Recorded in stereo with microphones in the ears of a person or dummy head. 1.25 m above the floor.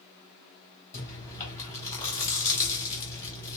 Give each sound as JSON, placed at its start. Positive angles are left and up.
{"t": 0.9, "sound": "chewing", "side_deg": 15, "distance_m": 3.0}